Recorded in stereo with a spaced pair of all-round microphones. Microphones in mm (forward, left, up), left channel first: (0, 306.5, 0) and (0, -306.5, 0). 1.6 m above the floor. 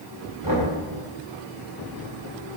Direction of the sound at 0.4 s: 30° left (ahead or behind).